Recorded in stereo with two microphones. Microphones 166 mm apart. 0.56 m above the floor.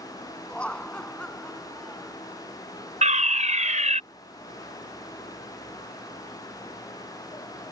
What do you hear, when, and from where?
0.5 s laughter: 10° left (ahead or behind); by 2.2 s 5° left (ahead or behind)
3.0 s a fire alarm: 45° right (ahead or behind)